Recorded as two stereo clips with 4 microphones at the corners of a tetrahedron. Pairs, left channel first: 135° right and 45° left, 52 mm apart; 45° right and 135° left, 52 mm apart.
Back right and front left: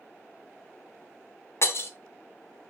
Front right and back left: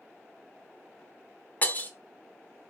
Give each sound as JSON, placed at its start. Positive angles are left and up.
{"t": 1.6, "sound": "breaking glass", "azimuth_deg": -105, "distance_m": 0.6}